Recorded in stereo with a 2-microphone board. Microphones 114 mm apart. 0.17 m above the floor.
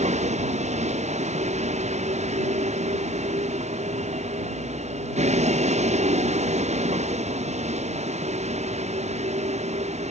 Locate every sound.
0.0 s a vehicle: 75° right (ahead or behind); by 10.1 s 70° right (ahead or behind)